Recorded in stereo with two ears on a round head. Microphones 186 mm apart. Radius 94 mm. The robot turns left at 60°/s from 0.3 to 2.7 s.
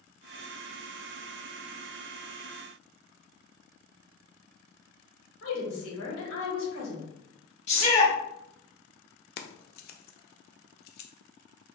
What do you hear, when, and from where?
5.4 s a woman speaking: 70° left (ahead or behind), 2.0 m
7.7 s a shout: 35° left (ahead or behind), 1.3 m
9.4 s keys jangling: 45° left (ahead or behind), 0.5 m